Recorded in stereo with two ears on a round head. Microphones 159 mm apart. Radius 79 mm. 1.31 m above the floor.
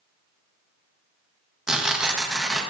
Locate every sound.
1.7 s tearing paper: 5° right (ahead or behind), 1.0 m